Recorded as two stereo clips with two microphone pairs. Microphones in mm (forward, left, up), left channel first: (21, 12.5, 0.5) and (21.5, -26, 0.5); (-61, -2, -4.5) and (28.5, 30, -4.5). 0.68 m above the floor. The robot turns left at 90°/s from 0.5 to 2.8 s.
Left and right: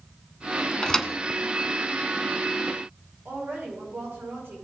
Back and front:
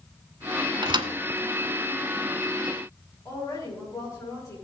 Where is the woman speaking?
105° right, 5 m.